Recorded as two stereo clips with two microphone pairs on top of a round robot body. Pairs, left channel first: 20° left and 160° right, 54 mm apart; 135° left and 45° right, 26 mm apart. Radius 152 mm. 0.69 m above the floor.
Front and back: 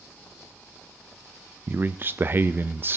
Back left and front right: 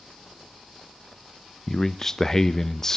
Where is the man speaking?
165° right, 0.5 m.